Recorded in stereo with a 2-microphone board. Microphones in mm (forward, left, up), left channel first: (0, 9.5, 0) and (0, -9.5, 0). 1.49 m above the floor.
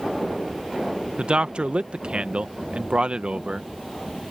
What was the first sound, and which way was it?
A man speaking, 65° right (ahead or behind).